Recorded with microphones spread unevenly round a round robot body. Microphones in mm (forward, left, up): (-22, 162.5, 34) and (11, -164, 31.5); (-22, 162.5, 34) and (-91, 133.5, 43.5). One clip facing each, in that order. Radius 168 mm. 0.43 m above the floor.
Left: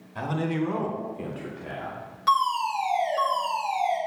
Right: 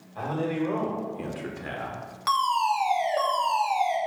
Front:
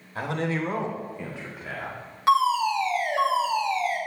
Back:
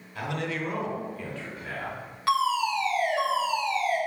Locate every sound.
0.1 s a man speaking: 65° left, 2 m; by 2.1 s 70° right, 1.8 m
2.3 s a fire alarm: 25° right, 2 m